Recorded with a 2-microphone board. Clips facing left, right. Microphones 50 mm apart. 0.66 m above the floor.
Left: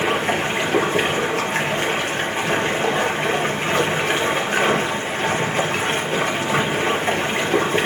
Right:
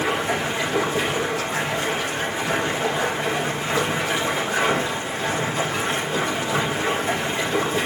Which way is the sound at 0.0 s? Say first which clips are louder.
Left 3 dB; 60° left (ahead or behind).